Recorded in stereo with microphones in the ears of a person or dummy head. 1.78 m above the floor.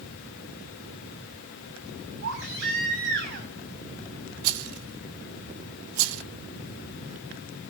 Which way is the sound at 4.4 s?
75° right (ahead or behind).